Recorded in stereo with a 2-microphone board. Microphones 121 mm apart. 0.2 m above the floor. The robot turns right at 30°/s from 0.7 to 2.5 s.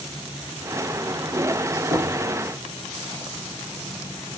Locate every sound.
1.9 s knocking: 75° right (ahead or behind), 5 m; by 2.2 s 70° right (ahead or behind), 5 m